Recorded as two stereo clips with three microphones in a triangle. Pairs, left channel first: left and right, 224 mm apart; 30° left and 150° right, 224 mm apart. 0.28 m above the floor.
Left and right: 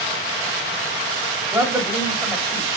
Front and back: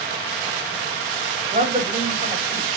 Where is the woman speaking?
165° right, 1.2 m.